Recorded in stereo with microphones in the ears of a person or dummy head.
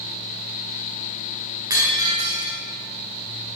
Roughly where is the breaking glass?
Centre.